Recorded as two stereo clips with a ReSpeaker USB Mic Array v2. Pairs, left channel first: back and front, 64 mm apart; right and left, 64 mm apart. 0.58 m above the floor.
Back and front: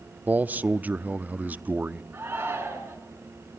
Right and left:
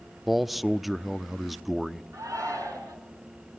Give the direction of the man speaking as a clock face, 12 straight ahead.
12 o'clock.